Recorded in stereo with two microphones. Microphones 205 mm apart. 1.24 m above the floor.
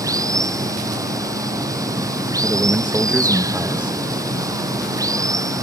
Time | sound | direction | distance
0.0 | running water | 15° right (ahead or behind) | ?
2.4 | a man speaking | 5° right (ahead or behind) | ?